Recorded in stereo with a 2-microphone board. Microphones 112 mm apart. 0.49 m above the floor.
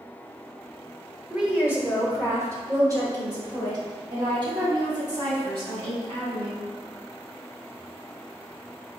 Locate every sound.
1.3 s a woman speaking: 5° right (ahead or behind), 1.2 m; by 6.7 s 50° right (ahead or behind), 4 m